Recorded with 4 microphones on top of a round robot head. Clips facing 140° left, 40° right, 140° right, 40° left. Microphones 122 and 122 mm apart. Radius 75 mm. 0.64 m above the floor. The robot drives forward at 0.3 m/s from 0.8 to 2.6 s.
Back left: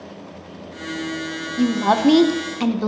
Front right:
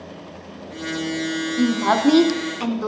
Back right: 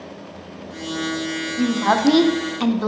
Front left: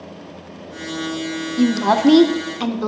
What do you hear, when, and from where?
1.6 s a woman speaking: 65° left, 0.7 m; by 2.9 s 120° left, 0.7 m